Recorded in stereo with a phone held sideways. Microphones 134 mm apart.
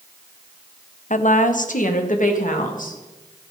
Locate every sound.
1.1 s a woman speaking: 70° left (ahead or behind), 0.8 m; by 3.0 s 85° left, 2.5 m